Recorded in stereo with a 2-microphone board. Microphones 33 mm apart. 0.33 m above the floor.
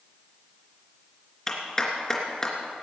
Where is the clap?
20° left (ahead or behind), 3 m.